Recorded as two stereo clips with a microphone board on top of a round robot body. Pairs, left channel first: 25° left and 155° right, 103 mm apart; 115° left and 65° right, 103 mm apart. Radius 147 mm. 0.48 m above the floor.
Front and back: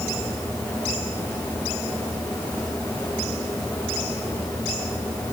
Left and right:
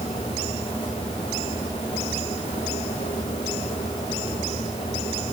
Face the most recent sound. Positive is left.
No sound to turn to.